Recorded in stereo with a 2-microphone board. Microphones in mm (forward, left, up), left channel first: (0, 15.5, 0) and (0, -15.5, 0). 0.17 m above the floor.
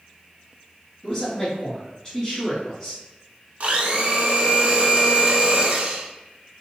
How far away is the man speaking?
About 1.4 m.